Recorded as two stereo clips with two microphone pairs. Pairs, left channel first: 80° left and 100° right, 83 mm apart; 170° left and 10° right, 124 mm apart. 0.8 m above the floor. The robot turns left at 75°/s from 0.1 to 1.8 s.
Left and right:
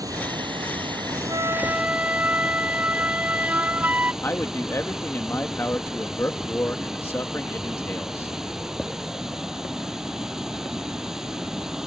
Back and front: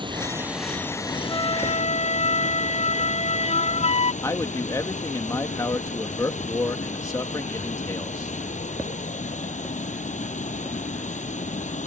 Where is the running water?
60° right; by 11.9 s 175° left.